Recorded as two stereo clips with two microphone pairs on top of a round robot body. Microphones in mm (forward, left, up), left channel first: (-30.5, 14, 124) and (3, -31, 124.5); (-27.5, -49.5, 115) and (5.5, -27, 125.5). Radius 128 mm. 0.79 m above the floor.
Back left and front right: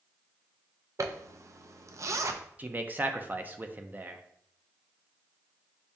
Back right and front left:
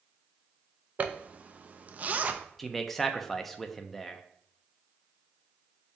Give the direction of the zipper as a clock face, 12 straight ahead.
1 o'clock.